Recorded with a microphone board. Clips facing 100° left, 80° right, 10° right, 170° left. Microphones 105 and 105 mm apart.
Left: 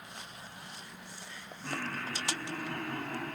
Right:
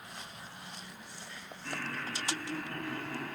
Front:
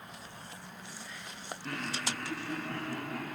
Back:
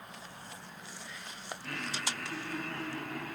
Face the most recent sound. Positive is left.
turn(degrees=40)